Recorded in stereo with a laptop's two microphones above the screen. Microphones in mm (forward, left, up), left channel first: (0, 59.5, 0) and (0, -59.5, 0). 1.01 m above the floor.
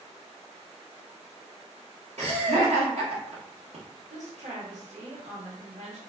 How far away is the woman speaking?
About 1.2 m.